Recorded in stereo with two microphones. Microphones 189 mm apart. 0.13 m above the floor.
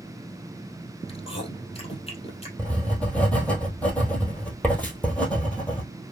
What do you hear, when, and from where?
1.1 s chewing: 30° left (ahead or behind), 2.5 m
2.6 s writing: 5° left (ahead or behind), 1.6 m